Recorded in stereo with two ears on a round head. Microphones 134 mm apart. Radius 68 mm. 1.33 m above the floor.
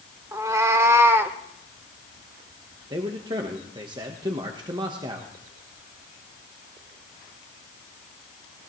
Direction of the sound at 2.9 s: 30° right (ahead or behind).